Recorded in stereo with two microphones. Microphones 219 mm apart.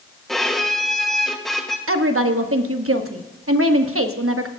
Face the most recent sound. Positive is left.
turn(degrees=-80)